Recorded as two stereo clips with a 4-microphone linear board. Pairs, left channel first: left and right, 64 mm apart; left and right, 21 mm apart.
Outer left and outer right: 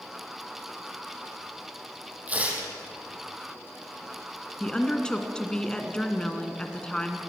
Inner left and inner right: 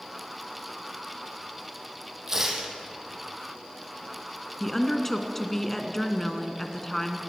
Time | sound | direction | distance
2.3 | tearing paper | 25° right (ahead or behind) | 4.5 m
4.6 | a woman speaking | 15° left (ahead or behind) | 2 m